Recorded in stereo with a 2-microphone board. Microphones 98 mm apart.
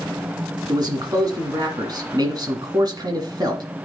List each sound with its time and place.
0.7 s a man speaking: 45° right (ahead or behind), 2 m